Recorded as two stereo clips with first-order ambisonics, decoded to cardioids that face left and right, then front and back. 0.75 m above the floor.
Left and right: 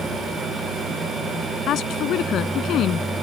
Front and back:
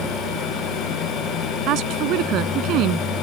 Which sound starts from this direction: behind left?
A woman speaking, at 1.7 s.